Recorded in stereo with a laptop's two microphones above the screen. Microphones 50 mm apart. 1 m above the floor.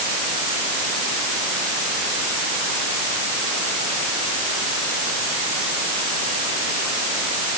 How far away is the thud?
I don't hear a thud.